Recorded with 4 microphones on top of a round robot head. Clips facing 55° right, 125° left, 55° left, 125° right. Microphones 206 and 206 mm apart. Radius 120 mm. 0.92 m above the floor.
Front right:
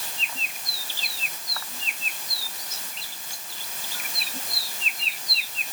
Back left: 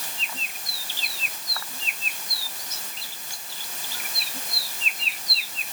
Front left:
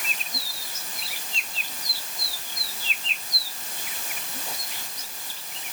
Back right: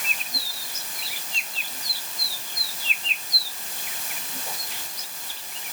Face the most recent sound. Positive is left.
No sound to turn to.